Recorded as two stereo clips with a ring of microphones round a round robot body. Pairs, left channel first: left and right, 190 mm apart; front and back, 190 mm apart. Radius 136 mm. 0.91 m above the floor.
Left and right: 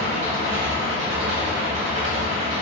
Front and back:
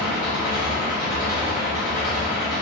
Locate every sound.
0.0 s an engine running: 105° right, 1.0 m